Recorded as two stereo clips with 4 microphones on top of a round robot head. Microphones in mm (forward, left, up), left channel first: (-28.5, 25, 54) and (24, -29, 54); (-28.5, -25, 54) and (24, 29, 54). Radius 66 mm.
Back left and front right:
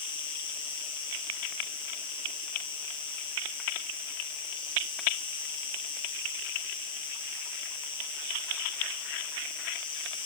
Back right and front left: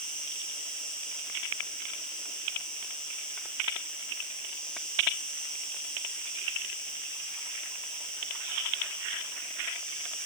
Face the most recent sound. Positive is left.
turn(degrees=145)